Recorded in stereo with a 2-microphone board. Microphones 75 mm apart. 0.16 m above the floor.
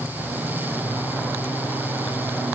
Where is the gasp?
No gasp in this recording.